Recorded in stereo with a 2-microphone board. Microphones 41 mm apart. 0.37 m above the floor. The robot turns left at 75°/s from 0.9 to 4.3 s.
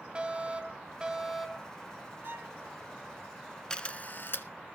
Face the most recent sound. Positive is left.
turn(degrees=65)  # may be behind; listen again after turning